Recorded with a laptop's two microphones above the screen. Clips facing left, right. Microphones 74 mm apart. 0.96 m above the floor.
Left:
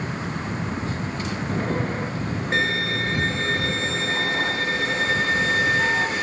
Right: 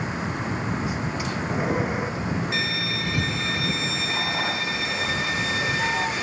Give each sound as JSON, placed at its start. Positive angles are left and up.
{"t": 0.0, "sound": "a vehicle", "side_deg": -10}
{"t": 2.5, "sound": "a violin", "side_deg": 40}